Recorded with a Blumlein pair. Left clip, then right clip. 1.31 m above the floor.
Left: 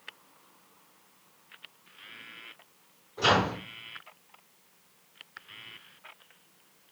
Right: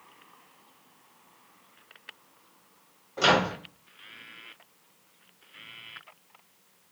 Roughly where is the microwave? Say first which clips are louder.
Right 2 dB; ahead right.